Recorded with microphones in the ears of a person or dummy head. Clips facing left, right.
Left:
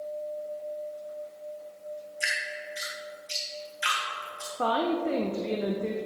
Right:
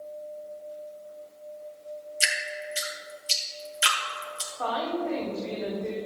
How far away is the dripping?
About 2.5 m.